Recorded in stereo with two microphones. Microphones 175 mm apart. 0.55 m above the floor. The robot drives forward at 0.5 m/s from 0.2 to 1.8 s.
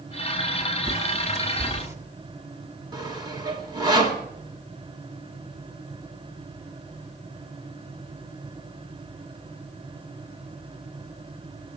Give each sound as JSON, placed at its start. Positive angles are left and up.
{"t": 0.8, "sound": "a bird", "side_deg": -20, "distance_m": 1.3}
{"t": 2.9, "sound": "sawing", "side_deg": -25, "distance_m": 1.4}